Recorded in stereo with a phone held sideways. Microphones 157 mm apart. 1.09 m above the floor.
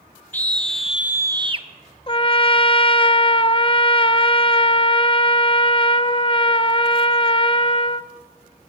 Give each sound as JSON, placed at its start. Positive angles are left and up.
{"t": 0.3, "sound": "a scream", "side_deg": 10, "distance_m": 1.4}
{"t": 2.1, "sound": "a trumpet", "side_deg": 35, "distance_m": 0.7}